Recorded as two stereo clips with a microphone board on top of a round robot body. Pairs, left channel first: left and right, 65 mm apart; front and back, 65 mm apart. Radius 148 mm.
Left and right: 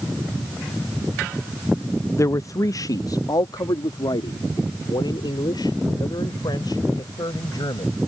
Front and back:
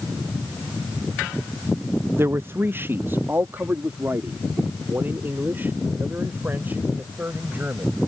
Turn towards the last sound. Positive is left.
turn(degrees=115)